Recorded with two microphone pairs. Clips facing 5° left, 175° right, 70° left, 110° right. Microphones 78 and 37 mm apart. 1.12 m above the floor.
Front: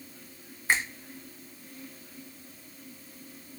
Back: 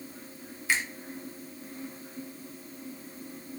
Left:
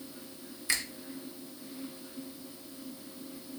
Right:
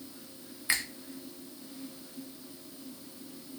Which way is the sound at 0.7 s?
45° right.